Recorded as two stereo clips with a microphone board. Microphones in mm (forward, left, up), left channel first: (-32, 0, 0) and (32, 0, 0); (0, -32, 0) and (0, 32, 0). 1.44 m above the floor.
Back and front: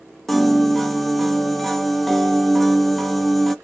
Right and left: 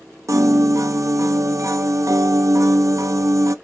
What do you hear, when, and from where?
0.3 s a piano: 95° left, 0.6 m